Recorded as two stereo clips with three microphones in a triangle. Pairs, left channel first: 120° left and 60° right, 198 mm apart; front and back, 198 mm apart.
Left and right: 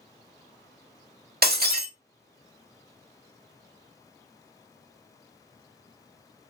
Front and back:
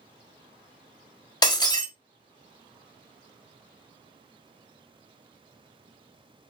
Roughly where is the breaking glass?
Ahead right.